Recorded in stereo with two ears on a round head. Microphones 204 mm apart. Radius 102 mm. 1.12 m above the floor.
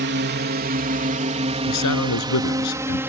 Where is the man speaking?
80° left.